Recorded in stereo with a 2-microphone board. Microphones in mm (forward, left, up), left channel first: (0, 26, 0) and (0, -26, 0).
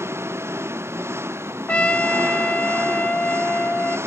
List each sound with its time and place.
0.0 s an engine running: 55° right (ahead or behind)
1.7 s a trumpet: 25° left (ahead or behind)